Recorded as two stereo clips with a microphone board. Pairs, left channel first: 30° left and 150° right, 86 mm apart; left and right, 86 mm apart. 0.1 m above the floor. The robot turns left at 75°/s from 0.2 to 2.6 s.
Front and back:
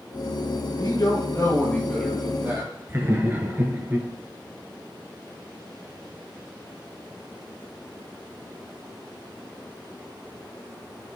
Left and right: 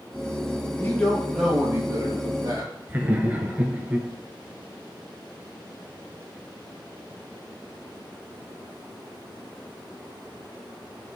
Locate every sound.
0.8 s a man speaking: 35° left, 2 m; by 2.7 s 105° right, 2 m
2.9 s laughter: 130° right, 1.2 m